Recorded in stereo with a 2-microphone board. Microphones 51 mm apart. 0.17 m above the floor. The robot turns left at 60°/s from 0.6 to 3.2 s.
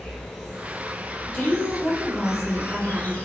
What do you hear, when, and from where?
0.0 s an insect: 170° right, 1.0 m; by 3.3 s 30° left, 1.0 m
1.2 s a woman speaking: 50° left, 2.0 m; by 3.2 s 65° right, 2.0 m